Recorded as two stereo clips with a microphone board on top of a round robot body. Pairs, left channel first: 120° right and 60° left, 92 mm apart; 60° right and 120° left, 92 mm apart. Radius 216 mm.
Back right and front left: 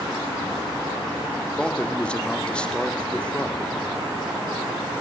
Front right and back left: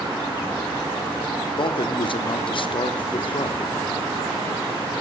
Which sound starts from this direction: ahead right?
A man speaking, at 1.4 s.